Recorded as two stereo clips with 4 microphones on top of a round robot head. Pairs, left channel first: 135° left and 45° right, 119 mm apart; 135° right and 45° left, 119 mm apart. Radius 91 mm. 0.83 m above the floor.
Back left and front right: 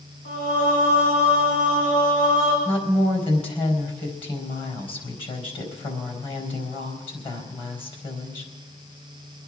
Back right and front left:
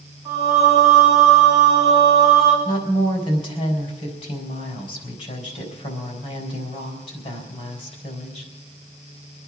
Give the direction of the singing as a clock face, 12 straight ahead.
8 o'clock.